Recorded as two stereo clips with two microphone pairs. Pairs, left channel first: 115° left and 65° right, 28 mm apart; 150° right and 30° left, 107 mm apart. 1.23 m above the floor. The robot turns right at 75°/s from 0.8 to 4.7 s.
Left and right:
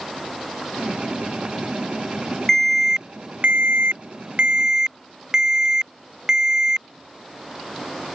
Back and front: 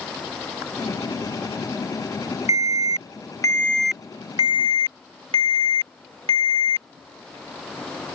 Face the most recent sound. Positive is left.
turn(degrees=0)